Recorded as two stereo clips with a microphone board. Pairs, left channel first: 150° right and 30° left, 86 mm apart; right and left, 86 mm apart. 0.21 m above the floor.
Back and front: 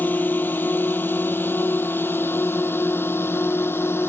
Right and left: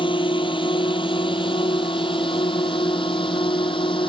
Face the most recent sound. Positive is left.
turn(degrees=-85)